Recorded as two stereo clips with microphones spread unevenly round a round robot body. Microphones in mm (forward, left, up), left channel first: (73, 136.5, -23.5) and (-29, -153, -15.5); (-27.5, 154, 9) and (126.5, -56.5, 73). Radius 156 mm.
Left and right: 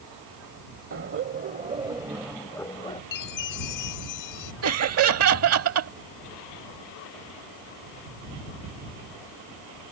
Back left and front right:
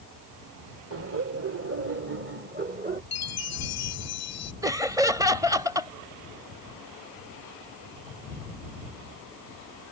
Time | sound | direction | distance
0.9 | laughter | 85° right | ?
3.1 | a chime | 105° left | ?
4.6 | laughter | 140° right | ?